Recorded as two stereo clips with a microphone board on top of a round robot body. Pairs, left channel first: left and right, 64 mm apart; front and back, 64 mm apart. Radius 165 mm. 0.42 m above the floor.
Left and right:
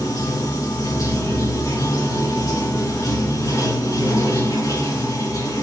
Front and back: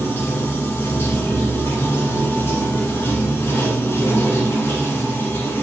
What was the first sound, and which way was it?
Running water, 55° left.